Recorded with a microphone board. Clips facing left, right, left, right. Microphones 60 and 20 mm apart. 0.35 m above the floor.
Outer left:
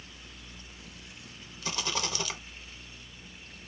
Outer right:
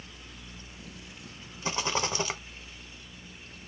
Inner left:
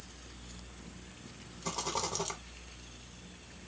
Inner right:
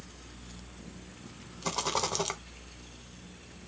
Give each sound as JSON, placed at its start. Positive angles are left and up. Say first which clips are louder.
{"t": 1.6, "sound": "a rattle", "louder": "outer right 4 dB, inner right 5 dB", "side_deg": -30, "distance_m": 0.9}